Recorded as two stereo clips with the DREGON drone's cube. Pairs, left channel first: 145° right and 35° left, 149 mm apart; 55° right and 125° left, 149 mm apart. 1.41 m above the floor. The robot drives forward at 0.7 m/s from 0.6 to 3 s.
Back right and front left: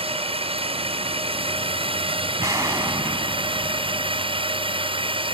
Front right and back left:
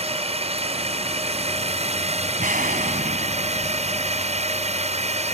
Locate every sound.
0.0 s a drone: 80° left; by 5.3 s 85° left
2.4 s an explosion: 100° left; by 4.8 s 105° left